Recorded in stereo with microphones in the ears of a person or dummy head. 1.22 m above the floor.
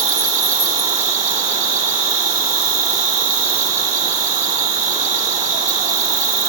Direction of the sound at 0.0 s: 40° right (ahead or behind).